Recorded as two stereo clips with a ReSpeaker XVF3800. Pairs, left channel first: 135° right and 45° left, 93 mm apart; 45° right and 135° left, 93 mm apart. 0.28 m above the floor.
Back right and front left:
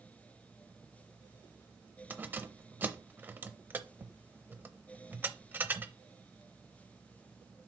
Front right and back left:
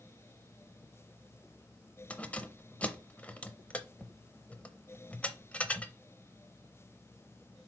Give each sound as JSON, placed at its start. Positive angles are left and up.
{"t": 2.1, "sound": "keys jangling", "azimuth_deg": 10, "distance_m": 0.6}